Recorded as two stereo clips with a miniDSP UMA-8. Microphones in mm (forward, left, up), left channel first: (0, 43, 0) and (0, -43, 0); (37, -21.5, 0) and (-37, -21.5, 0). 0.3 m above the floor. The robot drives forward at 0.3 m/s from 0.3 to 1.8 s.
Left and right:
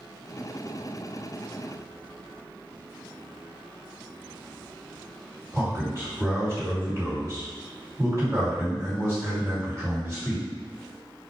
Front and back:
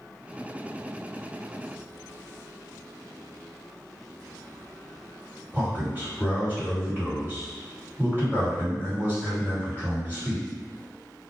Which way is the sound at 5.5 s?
130° right.